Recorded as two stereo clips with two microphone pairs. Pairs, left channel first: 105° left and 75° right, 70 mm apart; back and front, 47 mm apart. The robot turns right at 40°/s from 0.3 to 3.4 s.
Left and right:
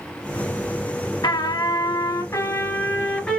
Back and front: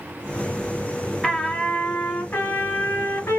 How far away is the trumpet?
About 1.9 m.